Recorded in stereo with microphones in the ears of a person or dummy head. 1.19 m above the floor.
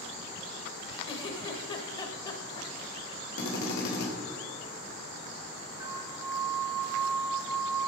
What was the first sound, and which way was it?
A giggle, 35° left (ahead or behind).